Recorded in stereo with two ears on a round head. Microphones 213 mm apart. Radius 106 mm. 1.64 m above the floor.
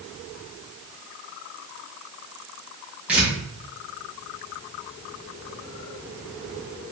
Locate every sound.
3.1 s tearing paper: 5° right (ahead or behind), 0.8 m